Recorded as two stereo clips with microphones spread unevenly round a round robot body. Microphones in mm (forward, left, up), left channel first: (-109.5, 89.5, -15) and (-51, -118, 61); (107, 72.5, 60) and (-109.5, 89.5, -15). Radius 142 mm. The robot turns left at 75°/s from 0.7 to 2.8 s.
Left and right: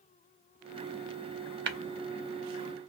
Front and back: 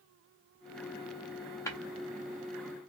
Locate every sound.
1.7 s tapping: 70° right, 0.5 m; by 1.8 s 80° right, 0.5 m